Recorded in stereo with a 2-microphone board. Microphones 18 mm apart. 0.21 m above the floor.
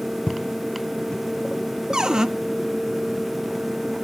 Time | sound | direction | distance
0.3 | footsteps | 60° left (ahead or behind) | 0.7 m
1.9 | a cupboard door | 45° right (ahead or behind) | 0.9 m